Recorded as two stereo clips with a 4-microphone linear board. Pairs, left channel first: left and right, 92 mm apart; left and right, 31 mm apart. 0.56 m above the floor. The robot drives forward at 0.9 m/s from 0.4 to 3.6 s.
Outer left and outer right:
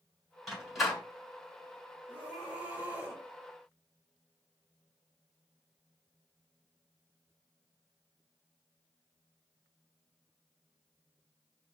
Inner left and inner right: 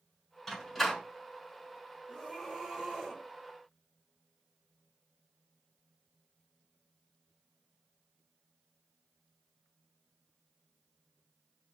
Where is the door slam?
Centre (ahead or behind), 3.5 m.